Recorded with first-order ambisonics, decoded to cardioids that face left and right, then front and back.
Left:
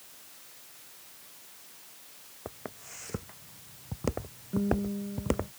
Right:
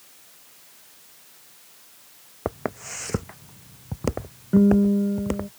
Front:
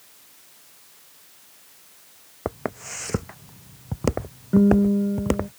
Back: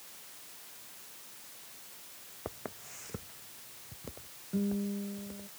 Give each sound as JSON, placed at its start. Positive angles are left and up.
{"t": 2.5, "sound": "footsteps", "azimuth_deg": -45}
{"t": 4.5, "sound": "a guitar", "azimuth_deg": -40}